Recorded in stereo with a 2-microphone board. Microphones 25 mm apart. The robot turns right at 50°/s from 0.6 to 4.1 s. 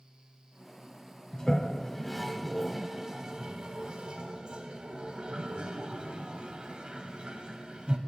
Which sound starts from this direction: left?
A toilet flushing, at 1.3 s.